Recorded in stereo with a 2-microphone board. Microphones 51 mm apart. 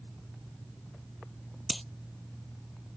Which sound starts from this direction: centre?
Breaking glass, at 1.7 s.